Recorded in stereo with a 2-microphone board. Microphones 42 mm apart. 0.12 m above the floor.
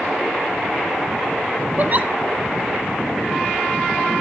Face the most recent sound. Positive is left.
turn(degrees=-40)  # may be behind; listen again after turning